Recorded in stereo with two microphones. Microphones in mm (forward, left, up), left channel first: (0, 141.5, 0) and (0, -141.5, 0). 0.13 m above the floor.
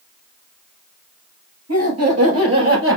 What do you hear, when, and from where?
1.7 s laughter: 65° right (ahead or behind), 2.5 m; by 3.0 s 50° right (ahead or behind), 1.9 m